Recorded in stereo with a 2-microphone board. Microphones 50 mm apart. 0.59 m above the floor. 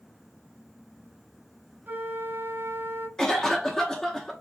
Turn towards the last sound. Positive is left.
turn(degrees=10)  # may be behind; listen again after turning